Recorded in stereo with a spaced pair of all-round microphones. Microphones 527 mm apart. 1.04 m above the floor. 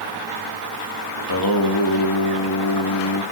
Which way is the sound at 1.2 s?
45° left (ahead or behind).